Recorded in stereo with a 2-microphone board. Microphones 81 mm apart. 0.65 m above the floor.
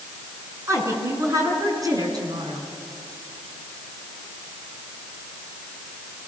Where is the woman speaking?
35° right (ahead or behind), 5.5 m; by 2.7 s 55° right (ahead or behind), 5.5 m.